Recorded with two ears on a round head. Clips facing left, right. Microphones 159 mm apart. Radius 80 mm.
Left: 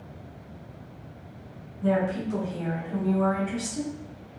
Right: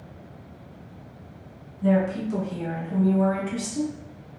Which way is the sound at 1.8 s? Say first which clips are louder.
Right 3 dB; 10° right (ahead or behind).